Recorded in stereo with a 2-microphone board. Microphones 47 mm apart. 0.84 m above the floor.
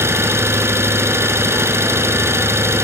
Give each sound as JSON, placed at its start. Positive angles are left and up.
{"t": 0.0, "sound": "an engine running", "side_deg": -65, "distance_m": 2.5}